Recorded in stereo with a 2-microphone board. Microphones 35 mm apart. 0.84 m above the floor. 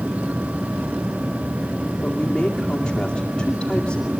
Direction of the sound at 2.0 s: 15° left (ahead or behind).